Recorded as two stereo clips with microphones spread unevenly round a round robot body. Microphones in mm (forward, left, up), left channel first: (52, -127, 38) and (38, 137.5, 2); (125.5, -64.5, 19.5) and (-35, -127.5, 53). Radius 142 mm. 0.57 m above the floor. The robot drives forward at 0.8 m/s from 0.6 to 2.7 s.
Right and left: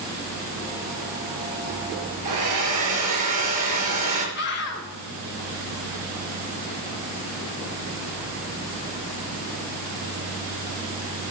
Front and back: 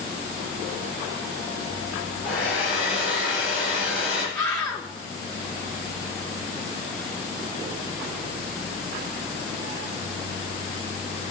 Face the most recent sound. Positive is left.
turn(degrees=-40)